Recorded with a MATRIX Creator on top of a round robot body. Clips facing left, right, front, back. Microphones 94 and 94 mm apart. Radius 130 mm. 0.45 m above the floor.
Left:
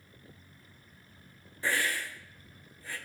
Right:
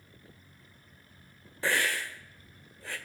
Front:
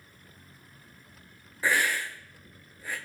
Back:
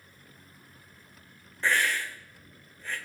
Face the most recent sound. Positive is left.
turn(degrees=-80)